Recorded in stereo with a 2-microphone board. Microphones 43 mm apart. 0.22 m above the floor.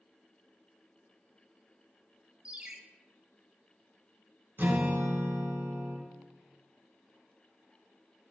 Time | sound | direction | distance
2.5 | a ringtone | 25° right (ahead or behind) | 0.8 m
4.6 | a guitar | 45° right (ahead or behind) | 1.2 m